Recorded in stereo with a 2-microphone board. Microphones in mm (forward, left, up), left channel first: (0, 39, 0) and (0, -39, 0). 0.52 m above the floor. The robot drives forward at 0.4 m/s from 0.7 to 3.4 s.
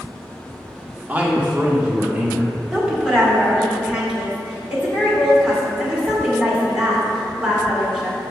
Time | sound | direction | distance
1.1 | a man speaking | 20° right (ahead or behind) | 0.9 m
2.7 | a woman speaking | 10° right (ahead or behind) | 1.5 m